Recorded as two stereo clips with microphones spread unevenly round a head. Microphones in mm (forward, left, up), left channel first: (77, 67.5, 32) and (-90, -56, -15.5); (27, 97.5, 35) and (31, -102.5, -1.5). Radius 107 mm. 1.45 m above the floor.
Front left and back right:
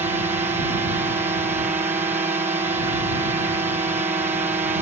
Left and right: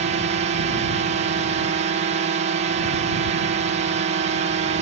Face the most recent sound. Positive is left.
turn(degrees=-85)